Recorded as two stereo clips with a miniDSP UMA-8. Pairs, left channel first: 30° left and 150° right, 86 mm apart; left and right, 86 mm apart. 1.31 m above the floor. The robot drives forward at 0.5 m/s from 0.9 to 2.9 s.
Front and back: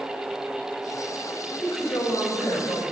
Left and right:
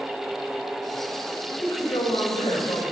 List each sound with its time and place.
1.6 s a woman speaking: 85° left, 5 m; by 2.8 s 95° left, 5 m